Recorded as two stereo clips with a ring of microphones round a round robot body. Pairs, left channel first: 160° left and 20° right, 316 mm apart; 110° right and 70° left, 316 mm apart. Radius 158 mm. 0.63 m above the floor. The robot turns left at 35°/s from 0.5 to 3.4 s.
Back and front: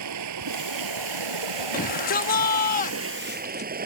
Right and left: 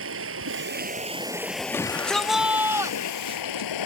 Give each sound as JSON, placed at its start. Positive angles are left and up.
{"t": 0.0, "sound": "running water", "azimuth_deg": 15}
{"t": 1.7, "sound": "a shout", "azimuth_deg": 175}